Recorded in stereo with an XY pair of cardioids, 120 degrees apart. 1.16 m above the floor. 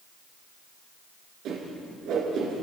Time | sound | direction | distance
1.4 | a whoosh | 65° right | 9 m